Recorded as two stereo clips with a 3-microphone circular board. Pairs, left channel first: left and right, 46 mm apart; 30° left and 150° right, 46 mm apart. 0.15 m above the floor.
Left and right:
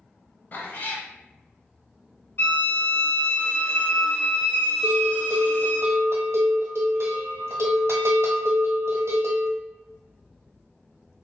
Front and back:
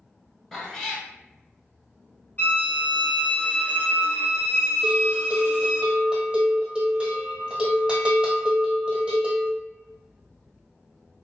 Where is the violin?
70° left, 1.5 m.